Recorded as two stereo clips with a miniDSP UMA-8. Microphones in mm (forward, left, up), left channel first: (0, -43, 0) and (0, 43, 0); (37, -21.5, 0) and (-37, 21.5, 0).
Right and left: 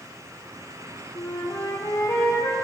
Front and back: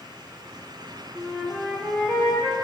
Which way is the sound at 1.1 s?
130° right.